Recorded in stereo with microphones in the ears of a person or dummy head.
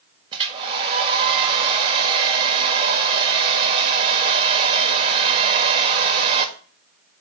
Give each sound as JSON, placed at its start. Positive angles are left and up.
{"t": 0.3, "sound": "a hair dryer", "side_deg": -25, "distance_m": 1.7}